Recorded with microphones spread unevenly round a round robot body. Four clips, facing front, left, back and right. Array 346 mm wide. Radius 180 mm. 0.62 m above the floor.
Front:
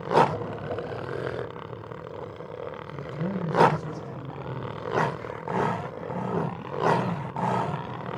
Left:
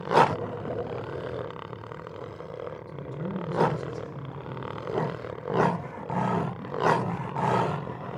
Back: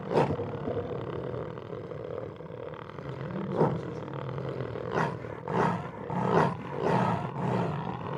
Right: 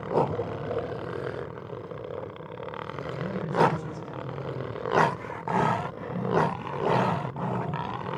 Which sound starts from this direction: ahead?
A man speaking, at 2.9 s.